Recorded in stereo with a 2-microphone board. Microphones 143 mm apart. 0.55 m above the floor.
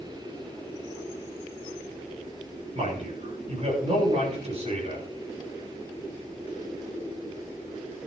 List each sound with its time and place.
2.8 s a man speaking: 45° right (ahead or behind), 8.5 m